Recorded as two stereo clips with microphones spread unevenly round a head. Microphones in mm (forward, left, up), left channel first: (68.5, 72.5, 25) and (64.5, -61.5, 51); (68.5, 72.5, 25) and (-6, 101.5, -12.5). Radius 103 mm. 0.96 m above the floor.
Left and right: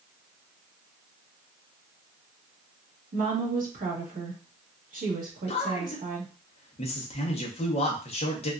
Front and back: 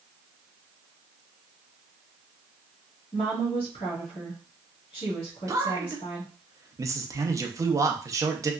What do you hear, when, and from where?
3.1 s a woman speaking: 70° right, 1.4 m
5.5 s a man speaking: 125° left, 0.7 m